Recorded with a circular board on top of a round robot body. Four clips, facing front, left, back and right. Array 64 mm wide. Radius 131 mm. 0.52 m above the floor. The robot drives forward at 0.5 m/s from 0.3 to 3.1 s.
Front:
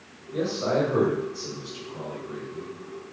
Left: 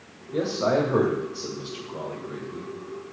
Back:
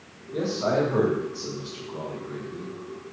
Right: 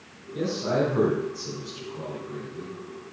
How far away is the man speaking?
About 2.5 m.